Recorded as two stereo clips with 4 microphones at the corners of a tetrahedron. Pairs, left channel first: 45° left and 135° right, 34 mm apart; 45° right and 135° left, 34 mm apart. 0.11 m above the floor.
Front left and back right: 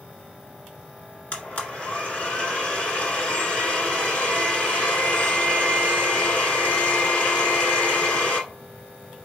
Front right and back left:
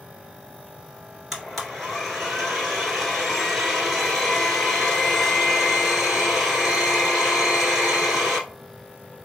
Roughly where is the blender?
Ahead left.